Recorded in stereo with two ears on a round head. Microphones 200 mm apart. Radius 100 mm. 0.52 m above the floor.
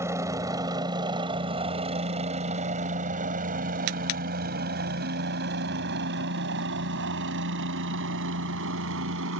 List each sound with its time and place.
0.0 s a helicopter: 15° right (ahead or behind); by 9.4 s 65° right (ahead or behind)